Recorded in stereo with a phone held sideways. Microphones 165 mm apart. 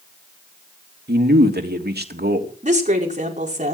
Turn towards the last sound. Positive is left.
turn(degrees=-50)  # may be behind; listen again after turning